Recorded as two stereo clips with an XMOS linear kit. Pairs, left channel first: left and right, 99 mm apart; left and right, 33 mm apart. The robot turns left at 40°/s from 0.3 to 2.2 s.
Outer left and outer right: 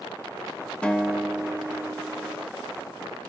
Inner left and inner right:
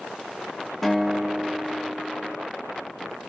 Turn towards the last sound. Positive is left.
turn(degrees=-45)